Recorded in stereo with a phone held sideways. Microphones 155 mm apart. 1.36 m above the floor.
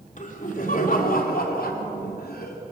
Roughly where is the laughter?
Left.